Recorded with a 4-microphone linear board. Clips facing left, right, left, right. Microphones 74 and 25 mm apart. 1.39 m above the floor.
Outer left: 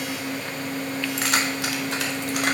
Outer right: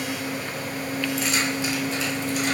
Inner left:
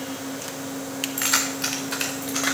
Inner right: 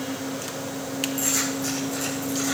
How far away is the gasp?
I don't hear a gasp.